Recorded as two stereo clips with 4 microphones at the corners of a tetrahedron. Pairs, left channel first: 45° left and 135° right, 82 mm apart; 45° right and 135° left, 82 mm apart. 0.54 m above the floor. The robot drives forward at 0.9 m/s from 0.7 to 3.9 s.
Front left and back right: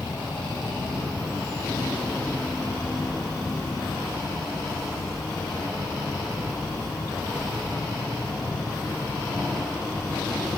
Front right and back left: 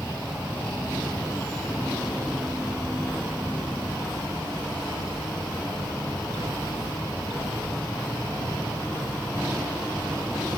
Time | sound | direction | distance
0.0 | an insect | 60° left | 1.8 m